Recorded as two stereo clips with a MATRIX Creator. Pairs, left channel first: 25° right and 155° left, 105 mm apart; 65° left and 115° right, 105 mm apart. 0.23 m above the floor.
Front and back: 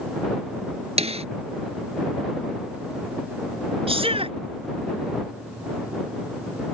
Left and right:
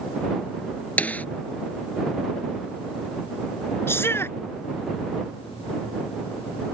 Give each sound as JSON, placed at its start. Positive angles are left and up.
{"t": 1.0, "sound": "a snare drum", "azimuth_deg": 145}
{"t": 3.9, "sound": "a shout", "azimuth_deg": 135}